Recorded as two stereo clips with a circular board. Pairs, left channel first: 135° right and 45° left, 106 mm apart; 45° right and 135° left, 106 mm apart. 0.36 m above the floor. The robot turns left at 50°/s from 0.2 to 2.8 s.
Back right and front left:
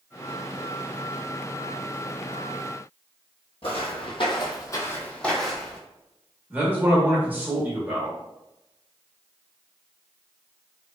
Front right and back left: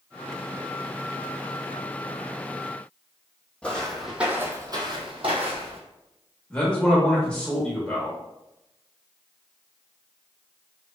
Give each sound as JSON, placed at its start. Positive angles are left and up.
{"t": 3.6, "sound": "footsteps", "azimuth_deg": -125, "distance_m": 0.7}
{"t": 6.5, "sound": "a man speaking", "azimuth_deg": 15, "distance_m": 0.8}